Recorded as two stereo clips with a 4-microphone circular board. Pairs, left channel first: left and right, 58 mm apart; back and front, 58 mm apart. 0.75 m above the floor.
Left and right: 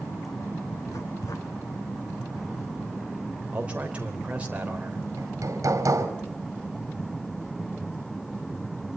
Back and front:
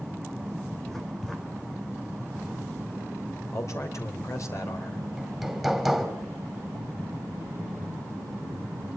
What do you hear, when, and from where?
0.9 s writing: 95° left, 3.5 m
3.5 s a man speaking: 155° right, 3 m
5.2 s hammering: 90° right, 2.5 m